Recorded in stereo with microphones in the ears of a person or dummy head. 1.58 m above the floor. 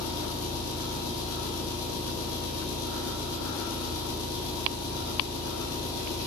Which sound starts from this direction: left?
An engine running, at 0.0 s.